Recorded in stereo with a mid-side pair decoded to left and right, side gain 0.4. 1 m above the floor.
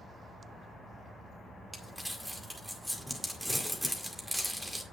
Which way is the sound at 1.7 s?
5° right.